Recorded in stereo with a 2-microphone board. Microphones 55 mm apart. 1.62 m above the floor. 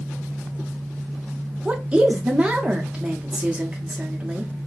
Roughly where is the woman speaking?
Centre.